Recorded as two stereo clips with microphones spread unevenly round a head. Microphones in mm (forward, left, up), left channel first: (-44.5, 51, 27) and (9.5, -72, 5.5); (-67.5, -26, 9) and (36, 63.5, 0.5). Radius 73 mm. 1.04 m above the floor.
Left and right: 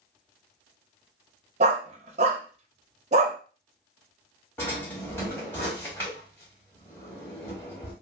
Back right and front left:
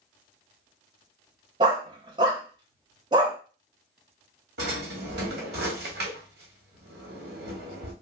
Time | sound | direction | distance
1.6 | a dog barking | 20° right | 0.6 m
4.6 | a drawer | 40° left | 1.3 m